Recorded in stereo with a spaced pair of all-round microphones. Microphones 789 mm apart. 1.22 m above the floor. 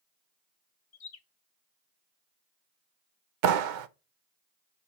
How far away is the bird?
About 0.8 m.